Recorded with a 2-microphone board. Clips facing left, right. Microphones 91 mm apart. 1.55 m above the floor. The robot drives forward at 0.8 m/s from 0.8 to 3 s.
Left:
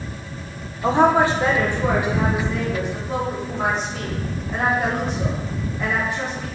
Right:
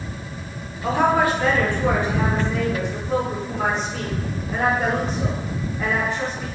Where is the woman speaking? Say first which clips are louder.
Left 3 dB; 30° left (ahead or behind), 0.5 m; by 6.5 s 10° left (ahead or behind), 1.8 m.